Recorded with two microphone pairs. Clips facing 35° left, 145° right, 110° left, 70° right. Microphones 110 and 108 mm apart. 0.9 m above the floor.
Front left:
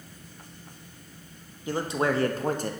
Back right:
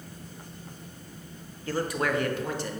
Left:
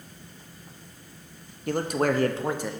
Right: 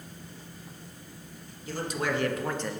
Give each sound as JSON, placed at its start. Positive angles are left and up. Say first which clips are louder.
{"t": 1.7, "sound": "a man speaking", "louder": "front left 2 dB, left 6 dB", "azimuth_deg": 105, "distance_m": 0.9}